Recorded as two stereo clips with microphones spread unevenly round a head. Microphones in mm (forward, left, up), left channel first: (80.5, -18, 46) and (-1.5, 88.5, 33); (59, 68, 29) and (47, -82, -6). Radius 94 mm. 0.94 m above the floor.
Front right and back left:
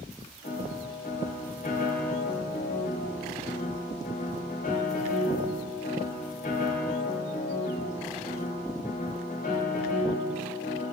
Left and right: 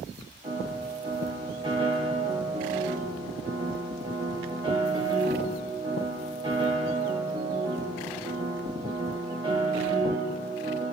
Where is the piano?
35° right, 3 m.